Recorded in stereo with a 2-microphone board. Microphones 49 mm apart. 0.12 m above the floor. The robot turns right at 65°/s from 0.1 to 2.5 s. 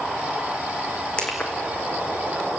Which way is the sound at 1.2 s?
20° left (ahead or behind).